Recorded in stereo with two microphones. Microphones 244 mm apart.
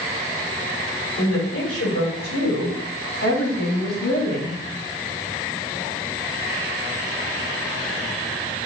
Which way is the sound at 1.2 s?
70° left (ahead or behind).